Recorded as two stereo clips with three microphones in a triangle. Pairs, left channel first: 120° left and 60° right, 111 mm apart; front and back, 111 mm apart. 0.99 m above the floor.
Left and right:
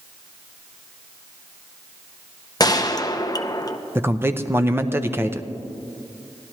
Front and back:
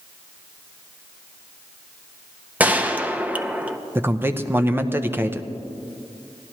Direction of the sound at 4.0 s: 120° right.